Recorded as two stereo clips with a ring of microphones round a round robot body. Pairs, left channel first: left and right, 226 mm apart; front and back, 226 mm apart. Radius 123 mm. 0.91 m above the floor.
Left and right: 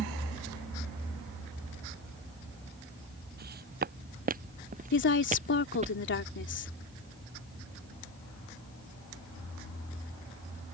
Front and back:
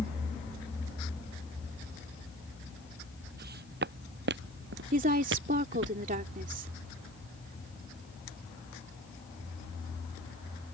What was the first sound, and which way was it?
Footsteps, 135° right.